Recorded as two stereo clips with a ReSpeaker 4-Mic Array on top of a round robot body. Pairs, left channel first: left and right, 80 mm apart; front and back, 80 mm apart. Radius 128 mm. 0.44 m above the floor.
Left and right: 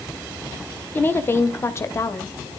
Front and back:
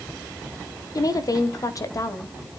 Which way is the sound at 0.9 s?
30° left.